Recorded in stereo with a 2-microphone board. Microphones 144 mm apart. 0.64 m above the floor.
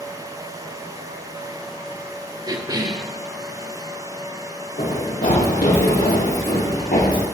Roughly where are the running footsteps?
Left.